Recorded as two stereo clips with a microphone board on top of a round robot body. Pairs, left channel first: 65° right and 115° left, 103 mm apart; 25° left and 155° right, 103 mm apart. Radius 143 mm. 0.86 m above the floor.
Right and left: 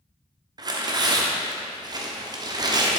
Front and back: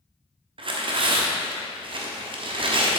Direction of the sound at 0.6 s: 165° left.